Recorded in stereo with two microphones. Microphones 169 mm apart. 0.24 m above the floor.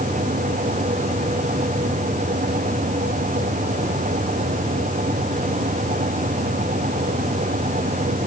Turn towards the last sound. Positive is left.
No sound to turn to.